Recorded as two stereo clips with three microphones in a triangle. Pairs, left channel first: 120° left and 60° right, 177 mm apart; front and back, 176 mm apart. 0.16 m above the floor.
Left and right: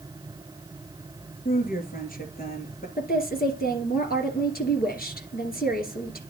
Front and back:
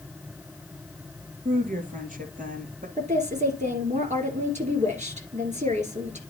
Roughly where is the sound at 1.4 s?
Behind left.